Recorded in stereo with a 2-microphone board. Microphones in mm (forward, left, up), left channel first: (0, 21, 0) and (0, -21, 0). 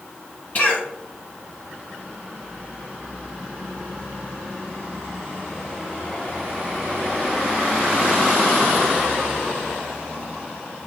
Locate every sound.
0.6 s a cough: 35° left (ahead or behind), 1.5 m